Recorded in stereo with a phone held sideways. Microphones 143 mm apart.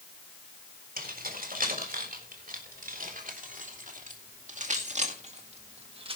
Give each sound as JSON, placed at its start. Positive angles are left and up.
{"t": 1.0, "sound": "keys jangling", "side_deg": -75, "distance_m": 4.0}